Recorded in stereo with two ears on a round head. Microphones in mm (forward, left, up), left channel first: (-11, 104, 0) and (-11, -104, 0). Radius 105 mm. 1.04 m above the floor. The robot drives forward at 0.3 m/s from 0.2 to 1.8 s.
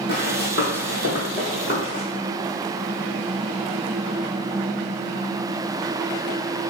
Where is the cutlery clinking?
No cutlery clinking in this recording.